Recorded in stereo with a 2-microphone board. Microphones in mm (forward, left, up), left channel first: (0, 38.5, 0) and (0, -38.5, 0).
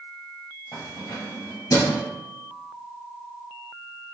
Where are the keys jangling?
60° left (ahead or behind), 1.8 m; by 2.0 s 45° left (ahead or behind), 1.2 m.